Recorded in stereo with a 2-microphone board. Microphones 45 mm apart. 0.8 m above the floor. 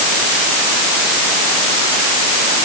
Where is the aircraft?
No aircraft in this recording.